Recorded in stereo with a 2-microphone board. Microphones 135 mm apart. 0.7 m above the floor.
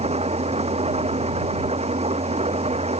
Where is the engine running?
50° right (ahead or behind).